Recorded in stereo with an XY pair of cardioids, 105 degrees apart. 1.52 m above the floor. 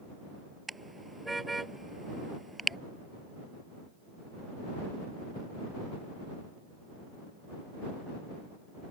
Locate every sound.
0.7 s a car horn: 15° right